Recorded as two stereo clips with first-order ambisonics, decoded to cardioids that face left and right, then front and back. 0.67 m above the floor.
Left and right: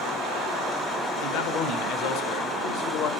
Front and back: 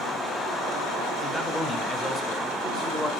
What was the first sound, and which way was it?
A man speaking, 90° left.